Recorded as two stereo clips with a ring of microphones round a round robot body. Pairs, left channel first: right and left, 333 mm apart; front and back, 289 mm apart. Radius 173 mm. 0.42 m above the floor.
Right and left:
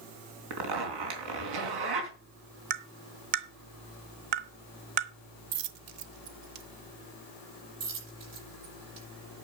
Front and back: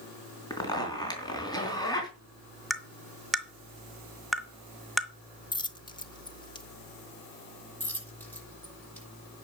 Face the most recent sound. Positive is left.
turn(degrees=85)